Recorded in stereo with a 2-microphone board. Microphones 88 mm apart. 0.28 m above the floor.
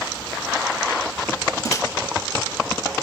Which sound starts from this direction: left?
A microwave, at 1.6 s.